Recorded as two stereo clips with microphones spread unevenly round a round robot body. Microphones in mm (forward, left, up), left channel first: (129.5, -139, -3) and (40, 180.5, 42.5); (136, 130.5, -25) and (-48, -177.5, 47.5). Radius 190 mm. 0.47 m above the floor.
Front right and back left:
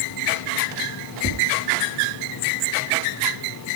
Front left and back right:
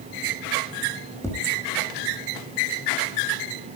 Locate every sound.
1.2 s tapping: 20° right, 7.5 m